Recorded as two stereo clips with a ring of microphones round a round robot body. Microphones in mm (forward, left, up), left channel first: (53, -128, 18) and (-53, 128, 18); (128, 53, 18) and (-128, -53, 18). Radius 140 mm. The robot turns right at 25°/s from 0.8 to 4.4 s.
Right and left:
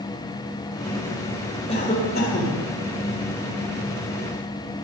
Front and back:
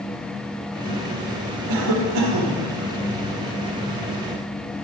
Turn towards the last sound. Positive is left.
turn(degrees=-70)